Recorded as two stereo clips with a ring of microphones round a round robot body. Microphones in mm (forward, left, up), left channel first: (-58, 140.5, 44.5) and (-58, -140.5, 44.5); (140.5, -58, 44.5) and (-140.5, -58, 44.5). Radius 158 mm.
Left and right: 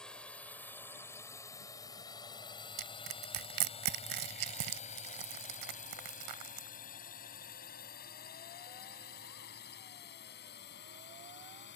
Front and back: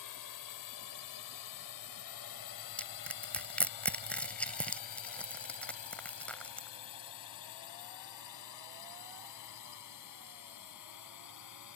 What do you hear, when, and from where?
0.0 s a drone: straight ahead; by 11.8 s 35° left
2.8 s crushing: 85° right